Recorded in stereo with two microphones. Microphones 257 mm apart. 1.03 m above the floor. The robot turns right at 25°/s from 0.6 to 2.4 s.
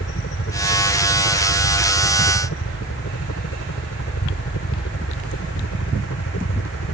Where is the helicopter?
60° left; by 6.9 s 105° left.